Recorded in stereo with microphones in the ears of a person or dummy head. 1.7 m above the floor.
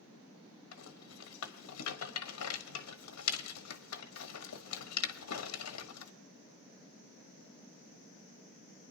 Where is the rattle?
80° left, 1.1 m.